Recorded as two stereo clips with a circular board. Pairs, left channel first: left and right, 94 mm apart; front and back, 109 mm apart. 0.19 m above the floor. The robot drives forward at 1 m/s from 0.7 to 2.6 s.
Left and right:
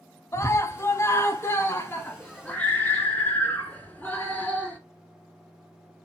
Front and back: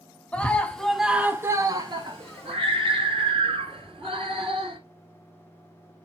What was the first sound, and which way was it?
A scream, 70° left.